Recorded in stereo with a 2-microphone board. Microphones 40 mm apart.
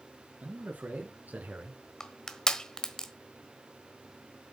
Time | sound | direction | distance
0.4 | a man speaking | 45° right (ahead or behind) | 4.5 m
2.0 | crushing | 15° left (ahead or behind) | 1.2 m